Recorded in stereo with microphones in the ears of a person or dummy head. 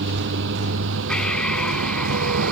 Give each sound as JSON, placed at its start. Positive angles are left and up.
{"t": 0.0, "sound": "a vehicle", "side_deg": -70}
{"t": 1.1, "sound": "breathing", "side_deg": 5}